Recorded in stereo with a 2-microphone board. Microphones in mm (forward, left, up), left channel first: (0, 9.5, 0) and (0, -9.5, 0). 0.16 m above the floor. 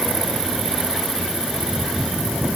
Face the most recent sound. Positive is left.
No sound to turn to.